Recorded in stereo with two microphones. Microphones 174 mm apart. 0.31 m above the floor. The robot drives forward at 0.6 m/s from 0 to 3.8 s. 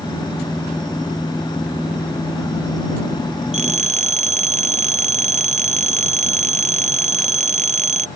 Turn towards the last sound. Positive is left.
turn(degrees=-45)  # may be behind; listen again after turning